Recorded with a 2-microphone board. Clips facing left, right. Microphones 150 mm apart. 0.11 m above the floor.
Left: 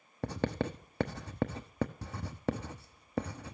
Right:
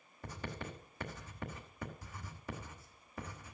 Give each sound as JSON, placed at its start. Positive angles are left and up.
{"t": 0.2, "sound": "writing", "side_deg": 80, "distance_m": 0.9}